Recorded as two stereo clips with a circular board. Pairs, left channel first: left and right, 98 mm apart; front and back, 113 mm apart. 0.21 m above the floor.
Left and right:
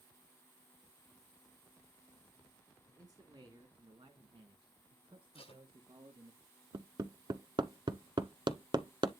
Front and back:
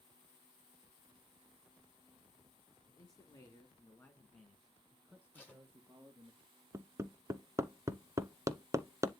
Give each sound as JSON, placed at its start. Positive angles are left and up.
{"t": 2.9, "sound": "a man speaking", "azimuth_deg": -45, "distance_m": 2.5}
{"t": 5.3, "sound": "tape being pulled", "azimuth_deg": 75, "distance_m": 6.5}
{"t": 6.7, "sound": "hammering", "azimuth_deg": -120, "distance_m": 1.0}